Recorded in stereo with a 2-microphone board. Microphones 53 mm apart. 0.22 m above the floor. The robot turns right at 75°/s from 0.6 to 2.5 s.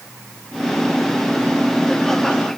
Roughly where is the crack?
I don't hear a crack.